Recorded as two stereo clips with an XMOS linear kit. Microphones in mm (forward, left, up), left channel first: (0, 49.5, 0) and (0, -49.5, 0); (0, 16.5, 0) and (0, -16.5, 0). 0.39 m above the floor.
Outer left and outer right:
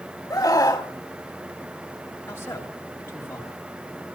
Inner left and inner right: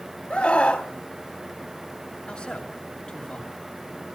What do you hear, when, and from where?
0.3 s a scream: 35° left (ahead or behind), 3 m
2.3 s a man speaking: 25° left (ahead or behind), 5 m